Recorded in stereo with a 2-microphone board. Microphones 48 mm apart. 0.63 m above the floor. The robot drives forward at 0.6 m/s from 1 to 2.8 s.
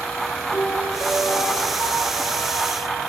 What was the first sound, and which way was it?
A piano, 50° left (ahead or behind).